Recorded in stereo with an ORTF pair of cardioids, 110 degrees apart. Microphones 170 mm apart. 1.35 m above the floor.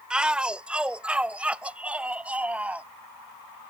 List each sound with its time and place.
0.1 s a shout: 5° right; by 2.9 s 10° right